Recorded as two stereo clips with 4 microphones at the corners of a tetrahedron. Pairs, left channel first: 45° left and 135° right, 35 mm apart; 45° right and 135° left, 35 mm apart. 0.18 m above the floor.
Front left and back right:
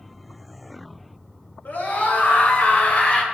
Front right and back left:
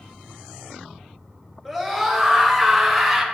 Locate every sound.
1.6 s a scream: 35° left, 2.5 m; by 3.2 s 40° left, 1.7 m